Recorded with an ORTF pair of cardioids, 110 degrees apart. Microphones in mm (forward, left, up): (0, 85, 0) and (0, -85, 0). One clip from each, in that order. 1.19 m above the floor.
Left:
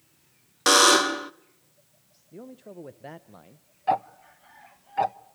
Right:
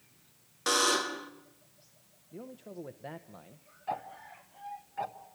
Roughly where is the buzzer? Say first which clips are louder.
Left 10 dB; ahead left.